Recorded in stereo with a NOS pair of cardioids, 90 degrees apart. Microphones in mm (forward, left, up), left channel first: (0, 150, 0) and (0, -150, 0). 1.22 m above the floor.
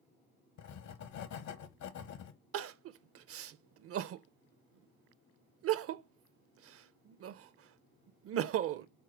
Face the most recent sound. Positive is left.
turn(degrees=-50)